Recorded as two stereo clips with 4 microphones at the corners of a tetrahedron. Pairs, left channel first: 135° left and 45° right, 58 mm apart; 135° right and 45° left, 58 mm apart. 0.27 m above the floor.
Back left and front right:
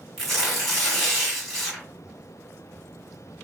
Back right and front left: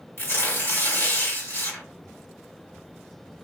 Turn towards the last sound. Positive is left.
turn(degrees=-145)